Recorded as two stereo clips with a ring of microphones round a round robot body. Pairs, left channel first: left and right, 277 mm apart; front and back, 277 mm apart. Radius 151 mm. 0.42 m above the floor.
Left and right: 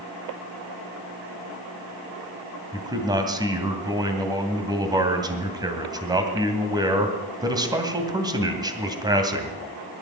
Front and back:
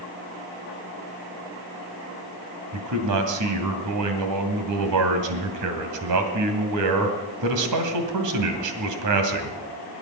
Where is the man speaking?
165° right, 2.5 m.